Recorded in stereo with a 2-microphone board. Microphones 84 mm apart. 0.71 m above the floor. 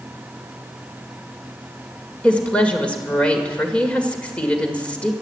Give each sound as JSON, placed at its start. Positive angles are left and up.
{"t": 2.2, "sound": "a woman speaking", "side_deg": 15, "distance_m": 2.0}